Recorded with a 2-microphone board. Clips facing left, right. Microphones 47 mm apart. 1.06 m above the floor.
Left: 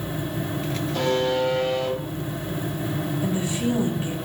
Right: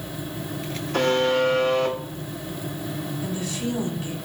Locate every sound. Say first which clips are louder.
0.9 s a buzzer: right 3 dB; 70° right (ahead or behind), 2.5 m
3.2 s a woman speaking: left 4 dB; 25° left (ahead or behind), 1.7 m